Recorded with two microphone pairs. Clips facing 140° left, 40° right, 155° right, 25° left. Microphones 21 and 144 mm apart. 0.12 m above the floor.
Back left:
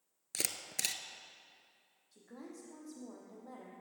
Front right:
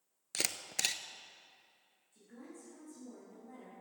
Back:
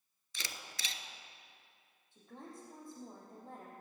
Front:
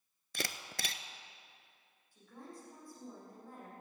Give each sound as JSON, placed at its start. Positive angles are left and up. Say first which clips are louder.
{"t": 0.3, "sound": "a camera shutter", "louder": "front right 2 dB, front 7 dB", "azimuth_deg": 30, "distance_m": 0.6}
{"t": 2.1, "sound": "a woman speaking", "louder": "back left 2 dB, back 1 dB", "azimuth_deg": 140, "distance_m": 4.5}